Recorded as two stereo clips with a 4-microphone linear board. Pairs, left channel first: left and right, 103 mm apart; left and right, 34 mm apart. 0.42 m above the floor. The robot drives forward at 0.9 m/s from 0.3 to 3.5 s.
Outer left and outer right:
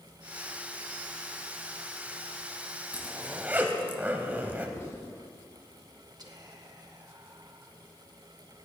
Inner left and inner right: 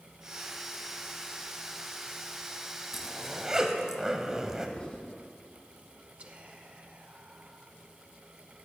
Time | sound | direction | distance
2.9 | a zipper | 15° right (ahead or behind) | 1.6 m
4.8 | writing | 30° left (ahead or behind) | 3 m
6.2 | whispering | 40° right (ahead or behind) | 0.9 m